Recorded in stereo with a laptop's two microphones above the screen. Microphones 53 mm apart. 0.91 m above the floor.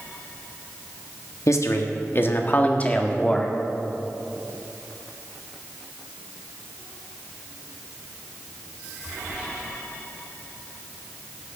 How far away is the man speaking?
About 1.3 m.